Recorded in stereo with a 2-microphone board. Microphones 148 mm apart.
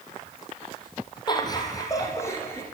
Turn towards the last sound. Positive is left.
turn(degrees=15)  # may be behind; listen again after turning